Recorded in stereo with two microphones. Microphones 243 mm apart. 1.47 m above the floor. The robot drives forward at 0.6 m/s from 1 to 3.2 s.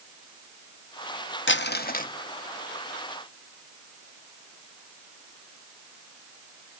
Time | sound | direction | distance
1.5 | crumpling | 50° left (ahead or behind) | 0.5 m